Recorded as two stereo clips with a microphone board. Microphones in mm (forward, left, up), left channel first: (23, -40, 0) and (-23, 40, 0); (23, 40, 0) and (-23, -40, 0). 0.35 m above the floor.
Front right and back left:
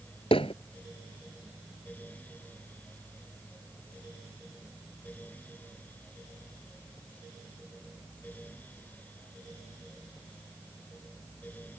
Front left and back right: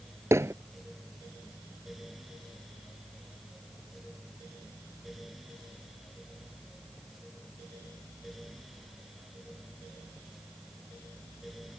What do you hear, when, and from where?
0.3 s hammering: 60° right